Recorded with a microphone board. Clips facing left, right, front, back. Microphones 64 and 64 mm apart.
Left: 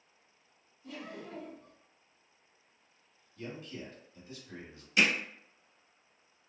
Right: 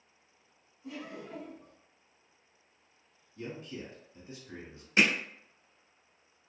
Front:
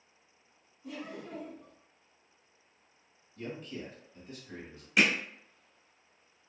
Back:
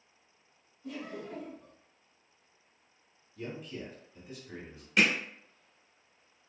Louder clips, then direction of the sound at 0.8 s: Right 1 dB, back 1 dB; 70° right.